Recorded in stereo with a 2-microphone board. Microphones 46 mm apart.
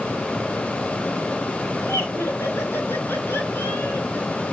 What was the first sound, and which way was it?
Laughter, 65° left (ahead or behind).